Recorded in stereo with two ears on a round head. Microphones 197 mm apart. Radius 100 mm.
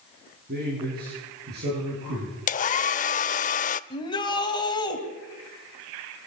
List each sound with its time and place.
0.5 s a man speaking: 45° right (ahead or behind), 9 m; by 2.4 s 50° right (ahead or behind), 10 m
2.5 s a hair dryer: 35° left (ahead or behind), 0.5 m
3.9 s a shout: 20° left (ahead or behind), 3 m